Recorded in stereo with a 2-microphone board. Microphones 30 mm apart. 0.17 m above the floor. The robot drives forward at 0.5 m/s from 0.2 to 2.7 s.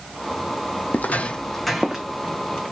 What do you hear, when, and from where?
0.9 s footsteps: 80° left, 0.5 m; by 2.0 s 10° right (ahead or behind), 1.1 m